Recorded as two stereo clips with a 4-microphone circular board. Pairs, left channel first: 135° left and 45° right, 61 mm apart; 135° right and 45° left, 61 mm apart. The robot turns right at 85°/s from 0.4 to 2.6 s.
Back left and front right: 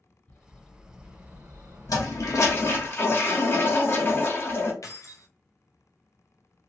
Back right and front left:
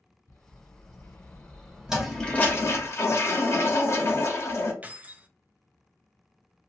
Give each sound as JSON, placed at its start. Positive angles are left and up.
{"t": 0.3, "sound": "a bird", "azimuth_deg": -165, "distance_m": 1.4}
{"t": 1.9, "sound": "a toilet flushing", "azimuth_deg": 125, "distance_m": 0.9}
{"t": 4.8, "sound": "keys jangling", "azimuth_deg": 110, "distance_m": 0.5}